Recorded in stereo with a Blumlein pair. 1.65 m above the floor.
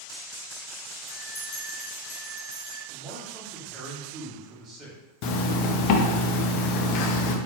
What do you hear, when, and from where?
1.1 s a bell: 35° left, 1.3 m
2.9 s a man speaking: 20° right, 1.4 m
5.2 s a zipper: 45° left, 0.5 m